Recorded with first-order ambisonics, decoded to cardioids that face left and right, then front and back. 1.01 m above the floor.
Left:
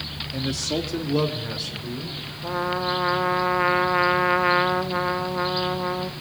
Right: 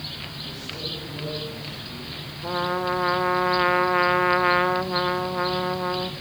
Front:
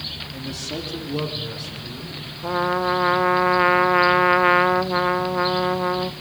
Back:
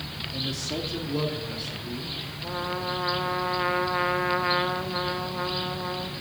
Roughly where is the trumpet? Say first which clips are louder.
Even, front 10 dB; ahead.